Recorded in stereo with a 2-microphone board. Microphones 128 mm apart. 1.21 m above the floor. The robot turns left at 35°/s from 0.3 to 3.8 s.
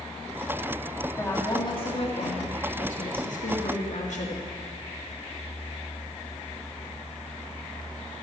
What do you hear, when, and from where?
1.2 s a woman speaking: 160° left, 2.5 m; by 4.5 s 65° left, 2.5 m